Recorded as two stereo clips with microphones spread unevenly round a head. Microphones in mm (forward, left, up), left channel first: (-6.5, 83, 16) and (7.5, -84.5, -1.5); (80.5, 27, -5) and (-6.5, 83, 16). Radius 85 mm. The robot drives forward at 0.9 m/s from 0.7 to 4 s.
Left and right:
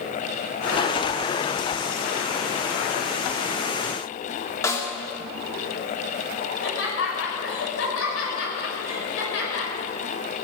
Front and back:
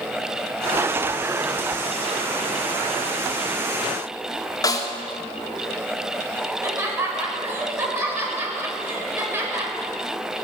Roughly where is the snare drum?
Ahead.